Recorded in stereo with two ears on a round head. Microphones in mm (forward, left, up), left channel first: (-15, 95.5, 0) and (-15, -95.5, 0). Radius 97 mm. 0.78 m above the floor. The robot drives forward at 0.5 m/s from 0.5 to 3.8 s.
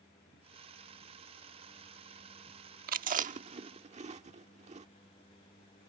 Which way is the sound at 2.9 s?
50° right (ahead or behind).